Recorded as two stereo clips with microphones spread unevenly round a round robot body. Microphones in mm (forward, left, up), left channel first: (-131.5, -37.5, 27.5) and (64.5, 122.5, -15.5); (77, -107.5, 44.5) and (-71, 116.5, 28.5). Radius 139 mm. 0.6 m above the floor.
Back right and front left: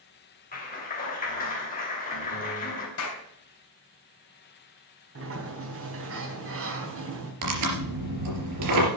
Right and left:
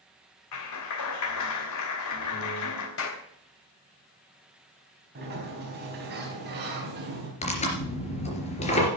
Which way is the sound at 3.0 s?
100° right.